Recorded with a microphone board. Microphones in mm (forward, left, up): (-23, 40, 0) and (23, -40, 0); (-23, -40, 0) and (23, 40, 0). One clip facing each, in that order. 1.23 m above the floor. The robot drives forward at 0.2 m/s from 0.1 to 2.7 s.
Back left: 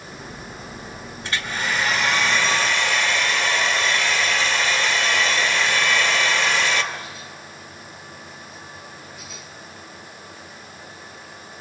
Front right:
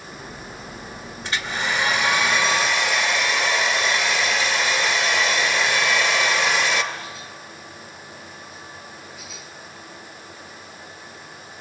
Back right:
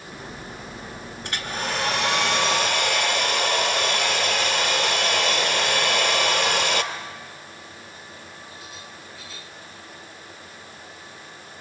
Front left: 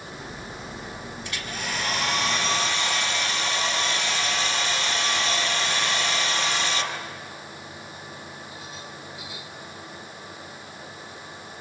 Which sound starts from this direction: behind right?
A hair dryer, at 1.2 s.